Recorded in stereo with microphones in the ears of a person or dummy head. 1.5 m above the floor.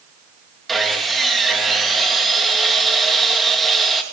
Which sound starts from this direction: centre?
Sawing, at 0.7 s.